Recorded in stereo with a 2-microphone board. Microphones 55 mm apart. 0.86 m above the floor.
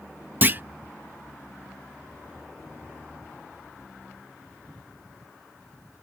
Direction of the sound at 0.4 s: 35° right (ahead or behind).